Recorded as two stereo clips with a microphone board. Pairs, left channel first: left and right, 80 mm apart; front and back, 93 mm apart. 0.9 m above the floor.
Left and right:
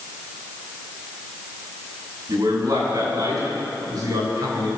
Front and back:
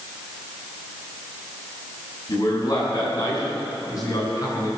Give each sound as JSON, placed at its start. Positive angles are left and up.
{"t": 2.3, "sound": "a man speaking", "azimuth_deg": -50, "distance_m": 7.0}